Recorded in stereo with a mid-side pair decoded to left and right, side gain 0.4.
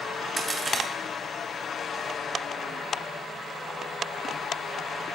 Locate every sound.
0.4 s a crack: 40° right, 3 m